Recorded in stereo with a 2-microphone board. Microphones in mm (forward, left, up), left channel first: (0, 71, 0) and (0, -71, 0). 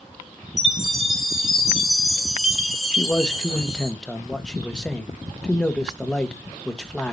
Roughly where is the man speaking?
Centre.